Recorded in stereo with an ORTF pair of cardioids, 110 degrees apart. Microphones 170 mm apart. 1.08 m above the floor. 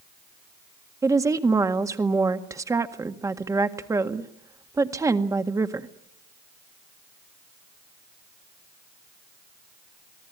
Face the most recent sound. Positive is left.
turn(degrees=-20)